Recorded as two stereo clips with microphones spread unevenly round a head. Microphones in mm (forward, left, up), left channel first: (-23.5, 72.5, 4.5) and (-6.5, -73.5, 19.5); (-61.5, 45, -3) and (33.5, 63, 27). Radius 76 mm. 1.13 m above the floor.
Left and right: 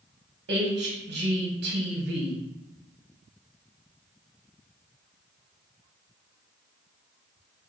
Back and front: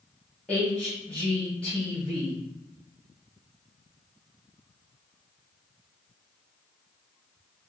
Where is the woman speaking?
95° right, 1.2 m.